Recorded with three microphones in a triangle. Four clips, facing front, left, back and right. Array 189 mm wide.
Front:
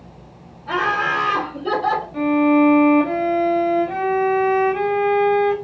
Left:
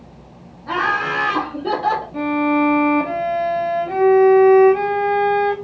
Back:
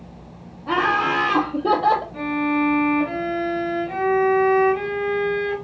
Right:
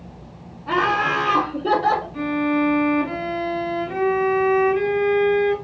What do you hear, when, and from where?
0.7 s laughter: 165° left, 3.5 m; by 2.0 s 175° right, 4 m
2.1 s a violin: 65° left, 2.5 m